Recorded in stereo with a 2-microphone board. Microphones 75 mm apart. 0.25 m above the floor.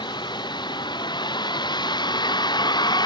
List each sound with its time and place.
0.0 s a vehicle: 90° left; by 3.1 s 75° left (ahead or behind)